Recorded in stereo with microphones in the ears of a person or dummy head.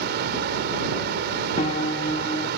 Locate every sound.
0.0 s a fan: 60° right (ahead or behind)
1.6 s a piano: 20° left (ahead or behind)